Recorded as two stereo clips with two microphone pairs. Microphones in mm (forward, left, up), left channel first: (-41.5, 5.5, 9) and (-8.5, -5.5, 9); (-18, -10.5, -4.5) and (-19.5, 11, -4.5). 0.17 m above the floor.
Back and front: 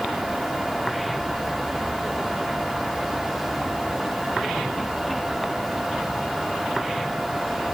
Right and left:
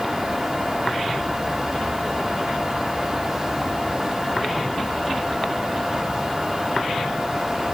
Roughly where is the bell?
I don't hear a bell.